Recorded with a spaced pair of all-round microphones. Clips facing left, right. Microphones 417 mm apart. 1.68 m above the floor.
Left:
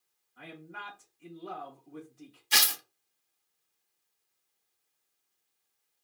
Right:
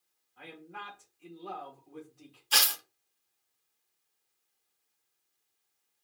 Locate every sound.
0.4 s a man speaking: 30° left (ahead or behind), 2 m
2.5 s tearing paper: 40° left (ahead or behind), 0.6 m